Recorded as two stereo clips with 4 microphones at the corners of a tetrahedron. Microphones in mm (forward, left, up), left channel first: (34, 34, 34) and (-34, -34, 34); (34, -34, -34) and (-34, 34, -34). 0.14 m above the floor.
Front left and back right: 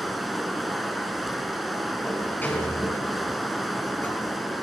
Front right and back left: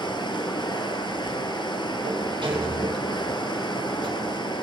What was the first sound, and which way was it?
Running water, 45° right.